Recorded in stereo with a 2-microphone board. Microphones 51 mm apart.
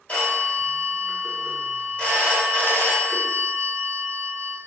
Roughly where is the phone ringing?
Left.